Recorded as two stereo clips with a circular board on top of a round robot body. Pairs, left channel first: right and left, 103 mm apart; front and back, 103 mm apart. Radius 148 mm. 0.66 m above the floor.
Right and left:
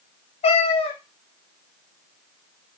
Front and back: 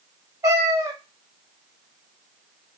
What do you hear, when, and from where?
0.4 s a cat meowing: 120° right, 0.5 m